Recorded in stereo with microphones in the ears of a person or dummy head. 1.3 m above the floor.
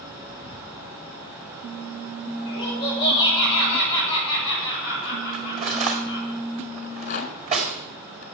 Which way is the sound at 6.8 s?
50° left (ahead or behind).